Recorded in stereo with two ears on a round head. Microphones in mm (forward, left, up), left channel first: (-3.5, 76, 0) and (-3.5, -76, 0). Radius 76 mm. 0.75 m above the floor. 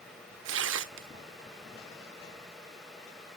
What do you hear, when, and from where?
0.5 s tearing paper: 85° right, 0.8 m